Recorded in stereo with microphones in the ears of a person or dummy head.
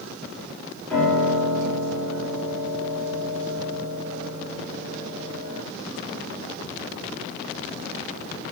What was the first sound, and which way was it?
A piano, centre (ahead or behind).